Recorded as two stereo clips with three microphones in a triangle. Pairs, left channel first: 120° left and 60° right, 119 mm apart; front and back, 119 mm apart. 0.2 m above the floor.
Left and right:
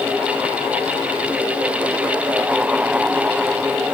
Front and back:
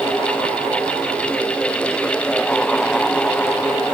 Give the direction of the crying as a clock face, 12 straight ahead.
I don't hear crying.